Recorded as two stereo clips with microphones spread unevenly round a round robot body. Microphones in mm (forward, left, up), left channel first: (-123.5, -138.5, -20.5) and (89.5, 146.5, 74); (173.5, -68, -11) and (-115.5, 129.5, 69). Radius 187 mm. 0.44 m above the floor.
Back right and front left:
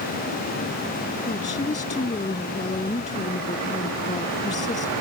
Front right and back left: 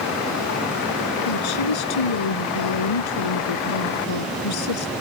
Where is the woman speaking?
50° right.